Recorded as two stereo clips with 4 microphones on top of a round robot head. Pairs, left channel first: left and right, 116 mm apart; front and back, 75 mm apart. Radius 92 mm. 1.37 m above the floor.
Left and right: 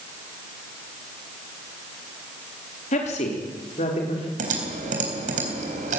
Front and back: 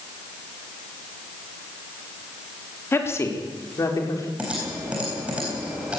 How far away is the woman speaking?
About 3.5 m.